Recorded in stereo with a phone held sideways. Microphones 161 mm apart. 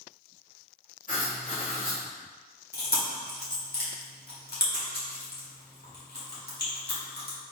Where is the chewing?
75° left (ahead or behind), 1.7 m.